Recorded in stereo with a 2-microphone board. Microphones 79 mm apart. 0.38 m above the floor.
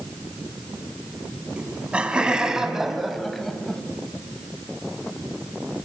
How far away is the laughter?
About 3.5 m.